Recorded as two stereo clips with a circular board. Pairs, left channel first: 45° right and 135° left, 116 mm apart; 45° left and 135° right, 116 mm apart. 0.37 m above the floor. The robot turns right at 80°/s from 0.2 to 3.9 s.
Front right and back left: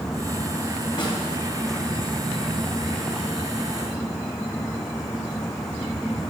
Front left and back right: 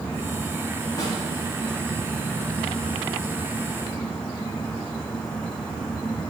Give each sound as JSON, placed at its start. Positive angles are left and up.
{"t": 1.0, "sound": "a snare drum", "azimuth_deg": -10, "distance_m": 3.0}